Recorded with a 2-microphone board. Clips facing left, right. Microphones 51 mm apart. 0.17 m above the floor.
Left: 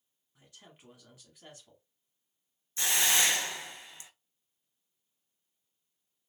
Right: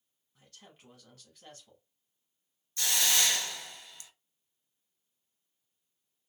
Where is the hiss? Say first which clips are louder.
Left 2 dB; 25° left (ahead or behind), 0.6 m.